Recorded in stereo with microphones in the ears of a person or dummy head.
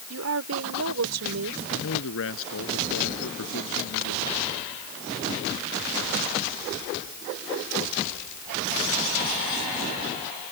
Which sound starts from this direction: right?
A woman speaking, at 0.1 s.